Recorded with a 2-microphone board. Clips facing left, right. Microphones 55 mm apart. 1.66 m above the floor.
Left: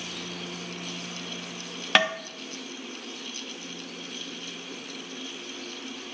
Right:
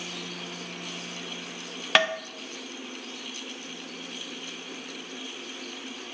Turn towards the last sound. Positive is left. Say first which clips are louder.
# even
turn(degrees=0)  # may be behind; listen again after turning